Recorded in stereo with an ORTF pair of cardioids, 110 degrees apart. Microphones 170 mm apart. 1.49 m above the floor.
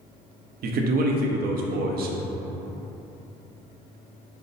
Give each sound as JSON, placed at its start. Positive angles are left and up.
{"t": 0.6, "sound": "a man speaking", "azimuth_deg": -65, "distance_m": 0.7}